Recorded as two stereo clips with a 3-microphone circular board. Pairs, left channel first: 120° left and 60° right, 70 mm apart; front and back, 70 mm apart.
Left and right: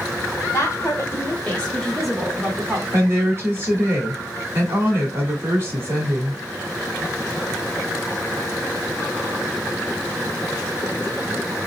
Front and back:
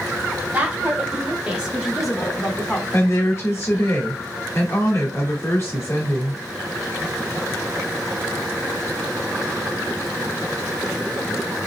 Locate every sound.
0.5 s a woman speaking: 125° left, 1.3 m; by 2.8 s 70° right, 1.1 m
2.9 s a woman speaking: 20° right, 1.4 m